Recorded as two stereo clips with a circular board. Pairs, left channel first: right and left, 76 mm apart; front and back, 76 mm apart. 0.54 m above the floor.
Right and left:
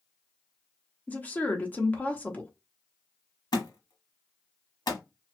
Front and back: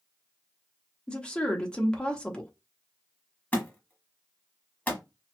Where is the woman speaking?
60° right, 0.8 m.